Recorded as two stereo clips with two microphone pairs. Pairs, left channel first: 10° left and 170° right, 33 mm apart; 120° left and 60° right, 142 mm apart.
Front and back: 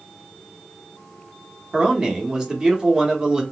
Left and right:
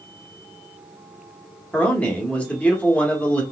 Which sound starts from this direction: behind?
A man speaking, at 1.7 s.